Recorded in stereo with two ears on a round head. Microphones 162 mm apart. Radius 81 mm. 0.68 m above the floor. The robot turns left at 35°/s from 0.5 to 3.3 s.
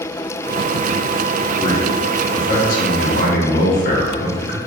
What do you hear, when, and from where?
1.6 s a man speaking: 140° left, 0.8 m; by 4.6 s 80° left, 0.8 m